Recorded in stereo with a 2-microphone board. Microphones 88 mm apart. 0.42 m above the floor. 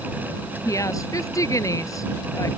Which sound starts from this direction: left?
A woman speaking, at 0.7 s.